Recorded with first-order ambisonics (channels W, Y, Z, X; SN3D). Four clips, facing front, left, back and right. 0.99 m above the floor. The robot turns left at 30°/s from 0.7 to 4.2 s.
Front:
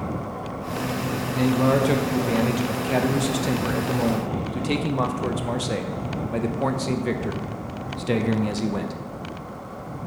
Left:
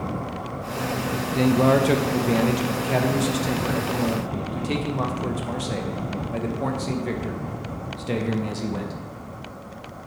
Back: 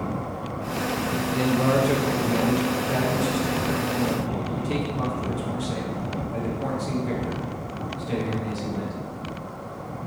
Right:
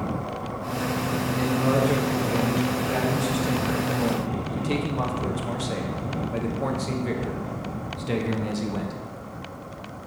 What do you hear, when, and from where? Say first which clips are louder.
1.4 s a man speaking: left 6 dB, front 2 dB; 90° left, 0.6 m; by 8.9 s 5° left, 0.6 m